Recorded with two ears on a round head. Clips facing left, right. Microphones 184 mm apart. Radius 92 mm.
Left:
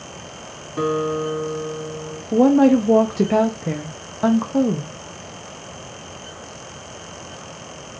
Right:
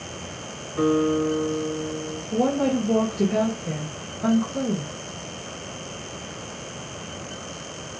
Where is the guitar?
50° left (ahead or behind), 2 m.